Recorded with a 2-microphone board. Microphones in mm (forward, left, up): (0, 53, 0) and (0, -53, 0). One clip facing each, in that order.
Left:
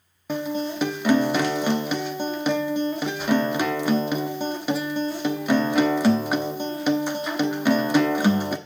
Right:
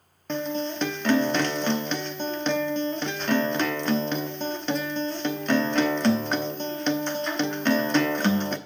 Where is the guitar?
10° left (ahead or behind), 0.9 m.